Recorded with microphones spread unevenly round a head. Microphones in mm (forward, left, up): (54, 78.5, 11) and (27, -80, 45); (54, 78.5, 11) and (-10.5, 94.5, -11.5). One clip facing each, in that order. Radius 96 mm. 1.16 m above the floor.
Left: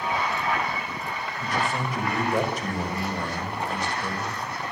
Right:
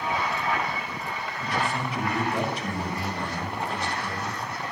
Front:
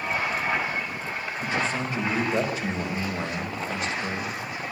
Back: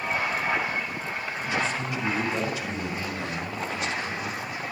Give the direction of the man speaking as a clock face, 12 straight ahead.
11 o'clock.